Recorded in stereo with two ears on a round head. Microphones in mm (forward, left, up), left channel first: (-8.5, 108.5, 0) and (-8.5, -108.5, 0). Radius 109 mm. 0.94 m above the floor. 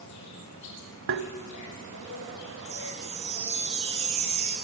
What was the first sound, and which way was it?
An insect, 80° left.